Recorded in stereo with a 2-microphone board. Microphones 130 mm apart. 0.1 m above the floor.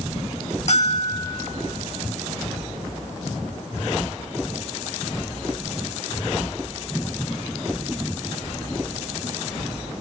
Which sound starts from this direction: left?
A bell, at 0.7 s.